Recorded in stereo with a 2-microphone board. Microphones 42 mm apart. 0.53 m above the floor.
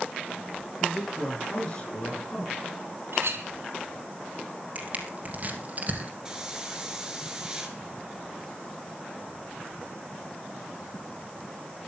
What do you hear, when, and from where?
0.8 s a man speaking: 20° left (ahead or behind), 8 m; by 2.6 s 25° left (ahead or behind), 6.5 m
3.1 s a clink: 70° right (ahead or behind), 3.5 m
4.8 s crushing: 40° right (ahead or behind), 2.5 m
6.2 s a hiss: 15° right (ahead or behind), 3 m